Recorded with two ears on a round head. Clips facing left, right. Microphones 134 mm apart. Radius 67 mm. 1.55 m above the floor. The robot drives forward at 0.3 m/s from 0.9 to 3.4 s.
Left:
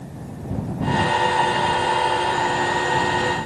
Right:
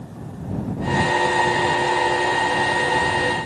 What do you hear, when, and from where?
Only background noise.